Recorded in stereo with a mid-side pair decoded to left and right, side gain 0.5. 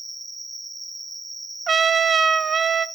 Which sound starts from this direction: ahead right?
A trumpet, at 1.7 s.